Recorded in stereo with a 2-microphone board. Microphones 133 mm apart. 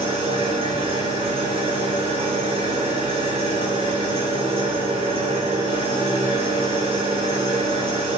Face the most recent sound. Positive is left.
turn(degrees=-45)  # may be behind; listen again after turning